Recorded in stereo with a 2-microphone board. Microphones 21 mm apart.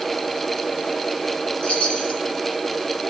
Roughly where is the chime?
Left.